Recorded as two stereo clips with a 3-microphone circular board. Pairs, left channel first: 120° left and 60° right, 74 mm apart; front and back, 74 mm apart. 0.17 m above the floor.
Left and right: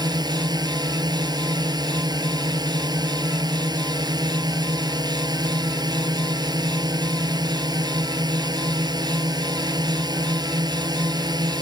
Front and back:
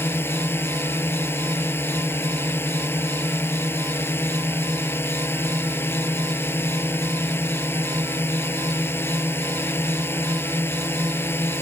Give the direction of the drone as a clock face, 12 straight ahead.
2 o'clock.